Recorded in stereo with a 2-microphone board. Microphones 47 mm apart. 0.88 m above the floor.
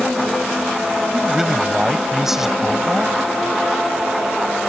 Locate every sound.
1.1 s a man speaking: 5° right (ahead or behind)